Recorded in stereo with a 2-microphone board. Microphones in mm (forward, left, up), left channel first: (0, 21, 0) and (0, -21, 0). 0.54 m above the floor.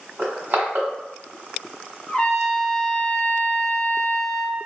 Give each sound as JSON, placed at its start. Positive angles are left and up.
{"t": 0.2, "sound": "crushing", "side_deg": -60, "distance_m": 1.2}
{"t": 2.1, "sound": "a trumpet", "side_deg": 30, "distance_m": 1.1}